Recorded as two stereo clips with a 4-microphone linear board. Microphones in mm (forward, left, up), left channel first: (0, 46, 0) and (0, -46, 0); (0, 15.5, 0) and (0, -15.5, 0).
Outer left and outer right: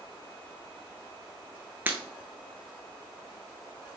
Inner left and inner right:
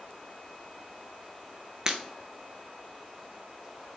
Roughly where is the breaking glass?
Right.